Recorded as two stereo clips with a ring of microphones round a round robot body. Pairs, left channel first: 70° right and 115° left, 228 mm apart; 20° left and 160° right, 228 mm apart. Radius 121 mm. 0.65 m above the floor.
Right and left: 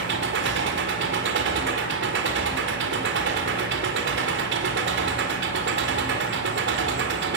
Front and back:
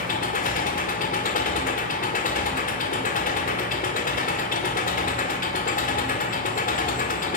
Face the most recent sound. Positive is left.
turn(degrees=75)